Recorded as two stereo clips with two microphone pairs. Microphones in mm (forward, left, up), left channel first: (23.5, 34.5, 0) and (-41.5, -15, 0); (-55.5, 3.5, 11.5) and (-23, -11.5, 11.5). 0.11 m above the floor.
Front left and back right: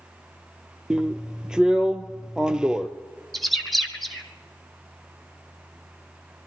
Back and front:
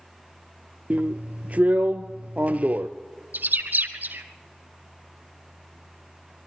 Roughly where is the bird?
Ahead right.